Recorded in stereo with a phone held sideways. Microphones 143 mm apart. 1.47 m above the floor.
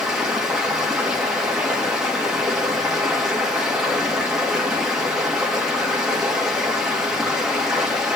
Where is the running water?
5° right (ahead or behind), 2.5 m.